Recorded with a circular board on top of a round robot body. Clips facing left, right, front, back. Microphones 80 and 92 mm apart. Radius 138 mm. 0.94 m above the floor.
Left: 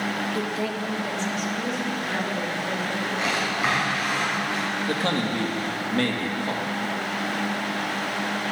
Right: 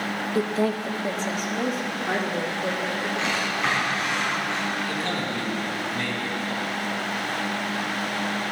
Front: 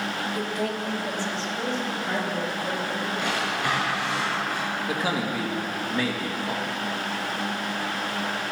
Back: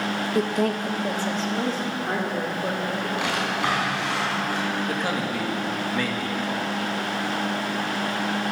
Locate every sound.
0.3 s a woman speaking: 150° right, 0.8 m; by 3.1 s 130° right, 3.5 m
3.2 s a drawer: 170° left, 6 m
4.9 s a man speaking: 85° left, 2.5 m